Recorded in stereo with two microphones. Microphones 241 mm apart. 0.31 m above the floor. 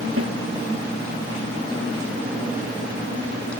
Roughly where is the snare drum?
Right.